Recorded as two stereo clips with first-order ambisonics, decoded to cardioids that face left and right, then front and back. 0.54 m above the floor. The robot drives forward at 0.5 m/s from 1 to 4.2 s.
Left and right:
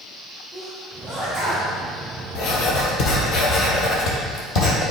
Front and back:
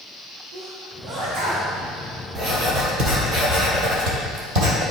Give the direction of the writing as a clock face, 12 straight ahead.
8 o'clock.